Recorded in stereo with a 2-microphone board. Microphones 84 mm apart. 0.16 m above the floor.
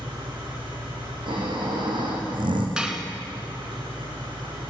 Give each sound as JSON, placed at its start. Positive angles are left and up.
{"t": 0.0, "sound": "an engine running", "side_deg": -65, "distance_m": 4.5}
{"t": 1.3, "sound": "snoring", "side_deg": -65, "distance_m": 3.0}
{"t": 2.8, "sound": "dishes clattering", "side_deg": -10, "distance_m": 1.2}